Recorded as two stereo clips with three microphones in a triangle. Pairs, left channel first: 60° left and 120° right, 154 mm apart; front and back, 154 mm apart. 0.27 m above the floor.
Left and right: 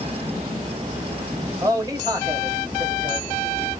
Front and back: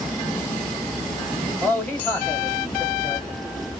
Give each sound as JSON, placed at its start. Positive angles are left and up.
{"t": 1.6, "sound": "a man speaking", "azimuth_deg": -70, "distance_m": 1.8}